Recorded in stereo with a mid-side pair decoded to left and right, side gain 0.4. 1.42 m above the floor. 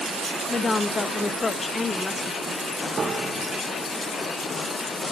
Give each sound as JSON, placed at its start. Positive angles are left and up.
{"t": 0.5, "sound": "a woman speaking", "azimuth_deg": 40, "distance_m": 2.0}
{"t": 3.0, "sound": "a piano", "azimuth_deg": -35, "distance_m": 1.9}